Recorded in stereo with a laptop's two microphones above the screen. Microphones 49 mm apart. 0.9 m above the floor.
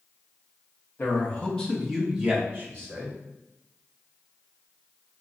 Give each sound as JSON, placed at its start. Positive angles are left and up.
{"t": 1.0, "sound": "a man speaking", "side_deg": 40, "distance_m": 1.1}